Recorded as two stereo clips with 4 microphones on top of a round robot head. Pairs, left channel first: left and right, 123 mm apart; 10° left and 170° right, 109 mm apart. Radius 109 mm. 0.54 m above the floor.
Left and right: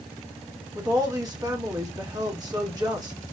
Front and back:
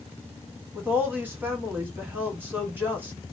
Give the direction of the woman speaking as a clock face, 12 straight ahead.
4 o'clock.